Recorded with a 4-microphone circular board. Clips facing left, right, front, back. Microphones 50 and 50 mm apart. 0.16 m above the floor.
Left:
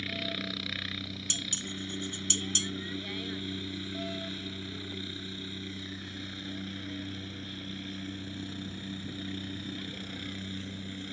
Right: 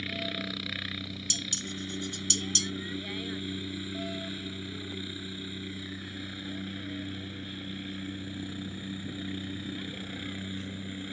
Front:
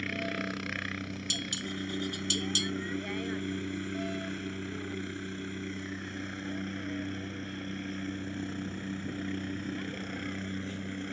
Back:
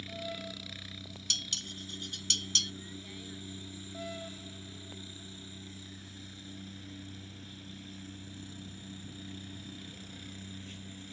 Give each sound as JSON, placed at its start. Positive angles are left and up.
{"t": 0.0, "sound": "a helicopter", "azimuth_deg": -5}
{"t": 1.3, "sound": "dishes clattering", "azimuth_deg": 75}